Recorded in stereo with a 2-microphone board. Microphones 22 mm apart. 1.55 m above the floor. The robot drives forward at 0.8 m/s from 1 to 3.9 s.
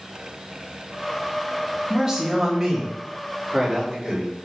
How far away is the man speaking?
About 3 m.